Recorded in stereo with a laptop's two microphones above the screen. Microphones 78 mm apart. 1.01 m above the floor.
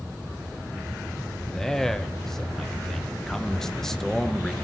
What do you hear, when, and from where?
1.5 s a man speaking: 5° left (ahead or behind), 0.7 m